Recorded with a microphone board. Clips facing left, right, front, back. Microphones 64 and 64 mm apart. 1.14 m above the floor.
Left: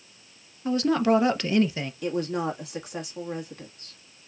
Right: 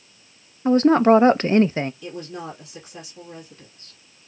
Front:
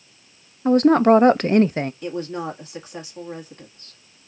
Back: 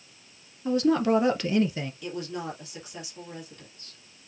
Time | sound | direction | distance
0.7 | a woman speaking | 40° right | 0.5 m
2.0 | a woman speaking | 55° left | 1.5 m